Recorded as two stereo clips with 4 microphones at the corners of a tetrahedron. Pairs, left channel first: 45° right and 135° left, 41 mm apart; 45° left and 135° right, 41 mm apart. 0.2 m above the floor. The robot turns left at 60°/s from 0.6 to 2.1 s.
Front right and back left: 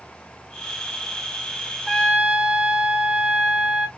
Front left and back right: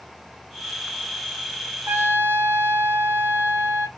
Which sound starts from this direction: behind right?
A trumpet, at 1.9 s.